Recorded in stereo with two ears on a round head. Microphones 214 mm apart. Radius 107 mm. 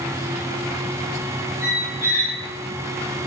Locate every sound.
1.6 s a squeak: 10° right (ahead or behind), 0.7 m